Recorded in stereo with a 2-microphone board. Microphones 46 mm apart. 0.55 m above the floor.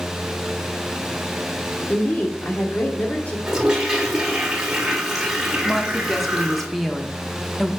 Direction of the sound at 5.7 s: 5° left (ahead or behind).